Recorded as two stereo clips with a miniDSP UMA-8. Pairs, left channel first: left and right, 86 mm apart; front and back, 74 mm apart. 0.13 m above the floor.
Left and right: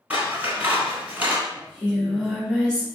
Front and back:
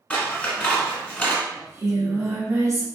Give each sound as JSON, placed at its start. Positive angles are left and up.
{"t": 0.1, "sound": "scissors", "azimuth_deg": -50, "distance_m": 1.2}
{"t": 1.6, "sound": "singing", "azimuth_deg": 165, "distance_m": 1.9}